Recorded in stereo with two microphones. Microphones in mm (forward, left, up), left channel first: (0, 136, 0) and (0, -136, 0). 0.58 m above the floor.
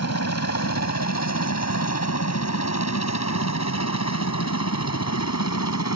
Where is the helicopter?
65° left (ahead or behind); by 6.0 s 70° left (ahead or behind).